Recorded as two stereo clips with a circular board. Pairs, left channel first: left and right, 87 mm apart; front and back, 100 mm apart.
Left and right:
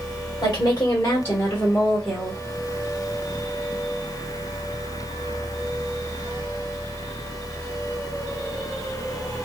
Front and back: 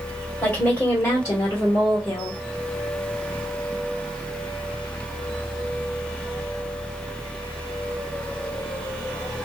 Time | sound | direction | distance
0.4 | a woman speaking | 60° left | 1.7 m